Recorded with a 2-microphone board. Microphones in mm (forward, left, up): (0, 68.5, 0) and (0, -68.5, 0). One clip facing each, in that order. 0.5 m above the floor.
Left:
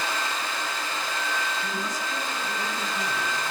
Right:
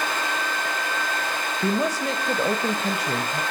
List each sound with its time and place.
1.6 s a woman speaking: 70° right (ahead or behind), 1.9 m